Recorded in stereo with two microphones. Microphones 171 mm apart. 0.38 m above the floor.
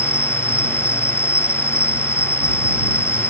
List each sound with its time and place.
0.0 s an insect: 15° left (ahead or behind)